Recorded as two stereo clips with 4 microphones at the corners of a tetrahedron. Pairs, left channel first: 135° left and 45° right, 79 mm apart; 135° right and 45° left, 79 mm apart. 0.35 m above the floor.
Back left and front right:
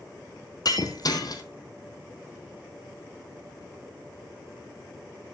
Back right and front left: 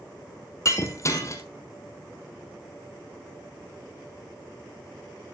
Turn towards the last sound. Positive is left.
turn(degrees=175)